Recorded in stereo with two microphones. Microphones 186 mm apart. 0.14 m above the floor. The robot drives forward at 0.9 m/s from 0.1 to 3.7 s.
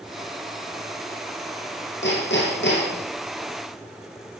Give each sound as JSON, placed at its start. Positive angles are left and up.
{"t": 2.0, "sound": "hammering", "side_deg": 80, "distance_m": 7.5}